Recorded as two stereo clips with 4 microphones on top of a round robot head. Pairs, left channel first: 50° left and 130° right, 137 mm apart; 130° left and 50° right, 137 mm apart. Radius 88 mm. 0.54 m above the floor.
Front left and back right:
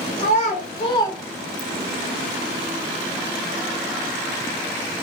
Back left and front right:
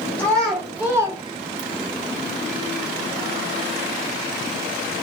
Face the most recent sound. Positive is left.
turn(degrees=-55)